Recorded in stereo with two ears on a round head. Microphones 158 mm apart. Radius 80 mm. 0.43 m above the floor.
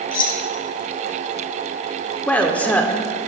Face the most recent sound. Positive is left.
turn(degrees=10)  # may be behind; listen again after turning